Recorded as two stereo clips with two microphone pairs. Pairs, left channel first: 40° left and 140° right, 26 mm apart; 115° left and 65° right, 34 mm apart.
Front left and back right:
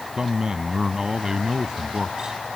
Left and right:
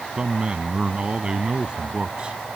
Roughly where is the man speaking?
Right.